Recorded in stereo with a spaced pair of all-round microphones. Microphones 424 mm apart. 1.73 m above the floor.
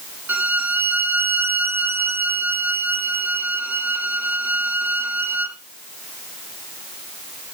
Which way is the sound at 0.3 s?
40° right (ahead or behind).